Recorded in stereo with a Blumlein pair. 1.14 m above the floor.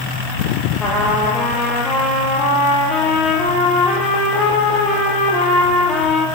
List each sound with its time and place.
0.8 s a trumpet: 20° left, 9.5 m